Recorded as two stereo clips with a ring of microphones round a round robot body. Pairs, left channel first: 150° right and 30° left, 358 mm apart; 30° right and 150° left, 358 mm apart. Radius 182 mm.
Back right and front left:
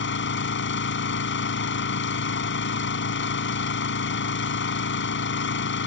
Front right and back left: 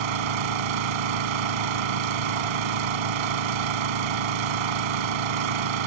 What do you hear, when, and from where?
0.0 s an engine running: 150° left